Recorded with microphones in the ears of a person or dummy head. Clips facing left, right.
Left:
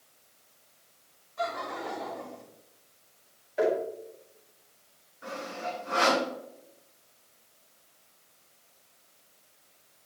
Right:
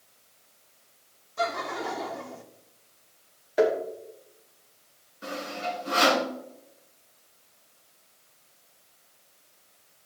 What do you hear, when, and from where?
1.4 s laughter: 50° right (ahead or behind), 1.5 m
3.6 s tapping: 70° right (ahead or behind), 2.5 m
5.2 s sawing: 45° right (ahead or behind), 3.5 m